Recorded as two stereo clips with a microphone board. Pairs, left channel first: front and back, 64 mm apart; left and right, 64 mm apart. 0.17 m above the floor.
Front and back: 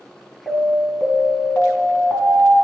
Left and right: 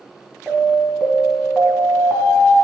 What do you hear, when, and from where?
0.5 s an alarm: 15° right, 1.4 m